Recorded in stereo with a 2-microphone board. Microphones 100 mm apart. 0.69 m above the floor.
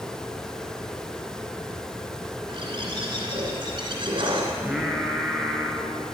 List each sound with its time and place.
2.5 s a bird: 60° right (ahead or behind), 3 m
4.6 s singing: 5° right (ahead or behind), 1.9 m